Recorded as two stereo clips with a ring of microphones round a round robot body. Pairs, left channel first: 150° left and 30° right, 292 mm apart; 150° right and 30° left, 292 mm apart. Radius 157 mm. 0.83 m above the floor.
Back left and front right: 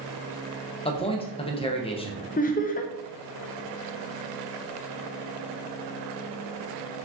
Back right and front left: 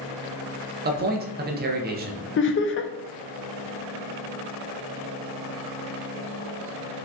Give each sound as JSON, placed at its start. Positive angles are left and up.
{"t": 0.8, "sound": "a man speaking", "azimuth_deg": 80, "distance_m": 0.7}
{"t": 2.4, "sound": "laughter", "azimuth_deg": -165, "distance_m": 0.5}